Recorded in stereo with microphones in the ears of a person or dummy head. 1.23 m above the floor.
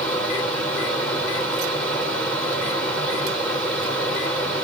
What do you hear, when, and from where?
0.0 s a fan: 10° left (ahead or behind), 2.5 m